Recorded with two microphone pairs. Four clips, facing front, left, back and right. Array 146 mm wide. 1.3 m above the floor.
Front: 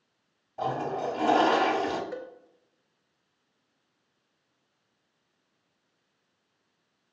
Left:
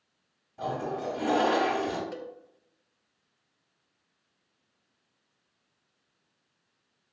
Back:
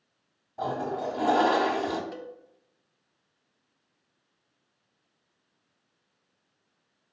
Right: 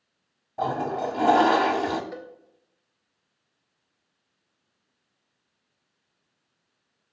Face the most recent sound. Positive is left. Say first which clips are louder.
# even, front 2 dB
turn(degrees=-35)